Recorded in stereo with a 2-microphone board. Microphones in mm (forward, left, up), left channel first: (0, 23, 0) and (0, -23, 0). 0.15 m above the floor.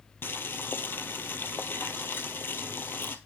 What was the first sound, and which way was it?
Boiling, 50° left (ahead or behind).